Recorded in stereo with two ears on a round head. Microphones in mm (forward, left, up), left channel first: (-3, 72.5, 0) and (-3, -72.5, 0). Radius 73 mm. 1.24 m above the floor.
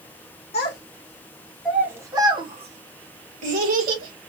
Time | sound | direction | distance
0.5 | a child speaking | 40° left (ahead or behind) | 0.9 m